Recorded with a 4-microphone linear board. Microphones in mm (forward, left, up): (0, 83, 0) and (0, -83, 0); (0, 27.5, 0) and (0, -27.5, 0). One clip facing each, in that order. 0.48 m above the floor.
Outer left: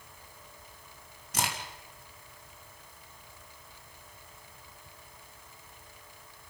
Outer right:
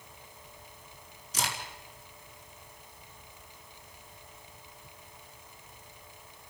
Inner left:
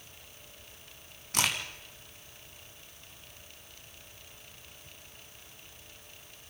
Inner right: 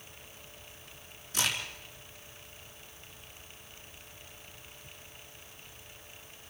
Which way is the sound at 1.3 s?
70° left (ahead or behind).